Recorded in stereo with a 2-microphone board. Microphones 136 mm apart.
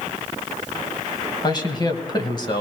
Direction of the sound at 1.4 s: 30° left (ahead or behind).